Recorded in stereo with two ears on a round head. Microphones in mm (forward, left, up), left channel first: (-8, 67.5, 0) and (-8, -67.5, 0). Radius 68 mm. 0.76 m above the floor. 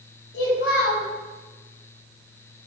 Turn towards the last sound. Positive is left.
turn(degrees=80)